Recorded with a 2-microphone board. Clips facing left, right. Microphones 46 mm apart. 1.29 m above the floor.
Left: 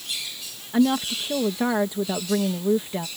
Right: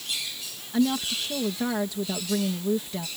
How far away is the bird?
I don't hear a bird.